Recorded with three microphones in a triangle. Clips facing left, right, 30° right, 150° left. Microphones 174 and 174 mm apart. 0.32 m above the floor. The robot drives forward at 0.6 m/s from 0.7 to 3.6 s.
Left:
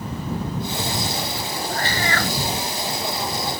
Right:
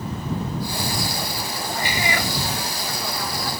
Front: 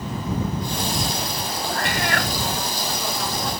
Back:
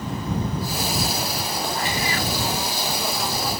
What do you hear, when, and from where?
1.7 s a cat meowing: 15° right